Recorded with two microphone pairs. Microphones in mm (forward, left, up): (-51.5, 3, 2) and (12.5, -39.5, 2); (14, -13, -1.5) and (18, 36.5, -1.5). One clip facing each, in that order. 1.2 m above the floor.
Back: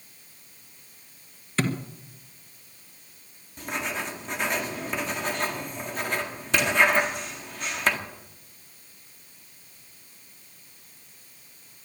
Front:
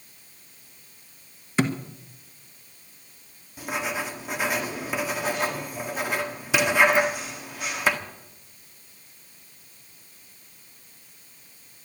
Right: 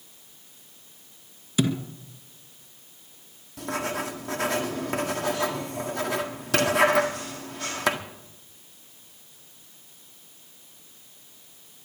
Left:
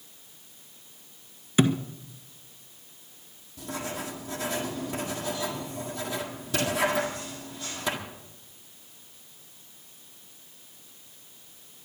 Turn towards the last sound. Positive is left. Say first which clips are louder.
# front 2 dB, right 5 dB
turn(degrees=-120)